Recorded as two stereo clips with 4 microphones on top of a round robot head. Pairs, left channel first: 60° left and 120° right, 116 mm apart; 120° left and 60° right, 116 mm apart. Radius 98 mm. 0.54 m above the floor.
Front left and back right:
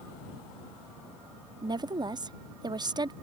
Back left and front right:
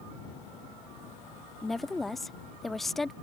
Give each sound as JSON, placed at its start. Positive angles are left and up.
{"t": 1.6, "sound": "a woman speaking", "azimuth_deg": -150}